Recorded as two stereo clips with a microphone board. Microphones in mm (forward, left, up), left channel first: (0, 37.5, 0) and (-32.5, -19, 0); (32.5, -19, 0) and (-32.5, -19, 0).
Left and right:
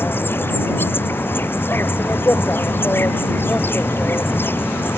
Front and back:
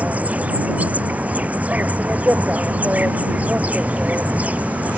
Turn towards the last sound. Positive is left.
turn(degrees=115)